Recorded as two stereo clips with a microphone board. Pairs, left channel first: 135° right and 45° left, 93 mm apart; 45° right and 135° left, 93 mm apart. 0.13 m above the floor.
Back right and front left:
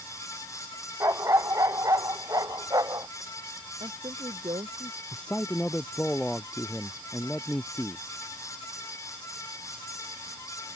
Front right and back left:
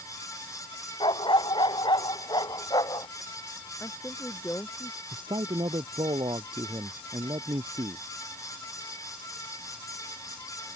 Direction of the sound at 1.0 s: 10° right.